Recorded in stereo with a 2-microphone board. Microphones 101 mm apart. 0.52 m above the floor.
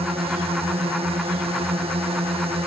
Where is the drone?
65° right (ahead or behind).